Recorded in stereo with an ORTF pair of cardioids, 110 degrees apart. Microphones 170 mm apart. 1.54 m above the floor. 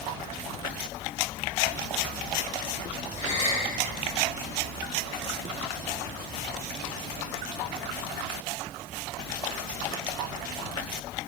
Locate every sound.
3.2 s a gasp: 45° left, 3.5 m